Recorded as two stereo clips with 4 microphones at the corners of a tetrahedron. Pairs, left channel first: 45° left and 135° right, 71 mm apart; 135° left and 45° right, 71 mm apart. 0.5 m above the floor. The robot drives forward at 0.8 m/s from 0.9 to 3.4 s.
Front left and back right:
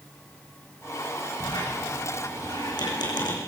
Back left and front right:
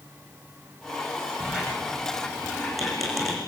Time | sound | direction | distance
1.4 | a squeak | 35° left | 7 m